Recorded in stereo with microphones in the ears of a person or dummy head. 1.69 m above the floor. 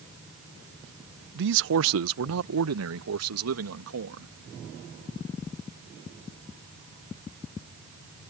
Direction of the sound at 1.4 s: 50° right (ahead or behind).